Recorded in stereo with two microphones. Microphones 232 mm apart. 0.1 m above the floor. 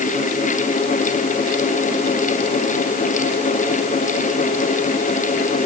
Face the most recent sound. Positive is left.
No sound to turn to.